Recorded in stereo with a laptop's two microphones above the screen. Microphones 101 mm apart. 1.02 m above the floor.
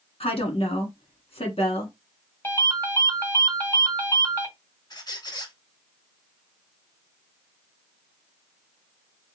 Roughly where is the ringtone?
Left.